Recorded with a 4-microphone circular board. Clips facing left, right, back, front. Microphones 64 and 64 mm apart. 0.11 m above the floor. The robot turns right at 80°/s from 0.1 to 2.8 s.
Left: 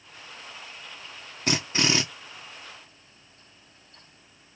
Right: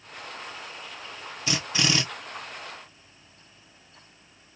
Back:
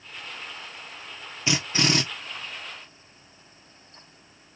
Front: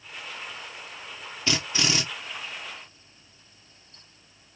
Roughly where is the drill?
Behind left.